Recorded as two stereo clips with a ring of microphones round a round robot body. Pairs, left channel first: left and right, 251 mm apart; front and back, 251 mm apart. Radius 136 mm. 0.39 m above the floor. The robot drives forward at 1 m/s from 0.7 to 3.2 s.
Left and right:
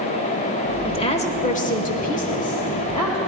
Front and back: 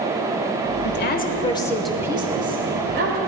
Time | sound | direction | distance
0.8 | a woman speaking | 25° left | 1.5 m